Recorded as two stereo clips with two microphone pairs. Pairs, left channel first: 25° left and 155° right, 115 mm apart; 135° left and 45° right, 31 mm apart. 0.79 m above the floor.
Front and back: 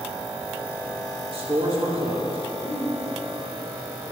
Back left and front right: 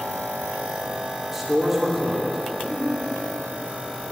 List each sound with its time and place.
1.3 s a man speaking: 125° right, 2.5 m
2.6 s a giggle: 50° left, 3 m